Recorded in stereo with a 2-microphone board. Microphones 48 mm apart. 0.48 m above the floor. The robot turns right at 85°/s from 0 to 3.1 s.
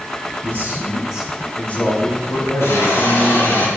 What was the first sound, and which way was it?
A man speaking, 75° right.